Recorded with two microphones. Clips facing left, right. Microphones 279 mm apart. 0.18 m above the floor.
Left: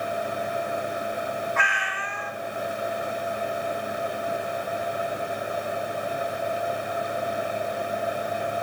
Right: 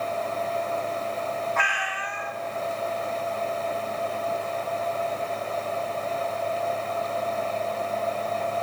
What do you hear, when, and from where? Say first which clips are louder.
1.6 s a cat meowing: even; 35° left (ahead or behind), 0.9 m